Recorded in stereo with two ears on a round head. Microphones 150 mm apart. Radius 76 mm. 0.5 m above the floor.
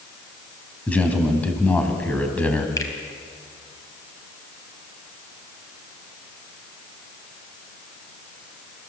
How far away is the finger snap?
About 3 m.